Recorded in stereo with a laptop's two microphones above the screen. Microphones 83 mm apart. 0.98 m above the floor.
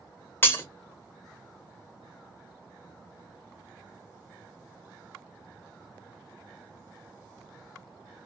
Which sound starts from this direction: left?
Breaking glass, at 0.4 s.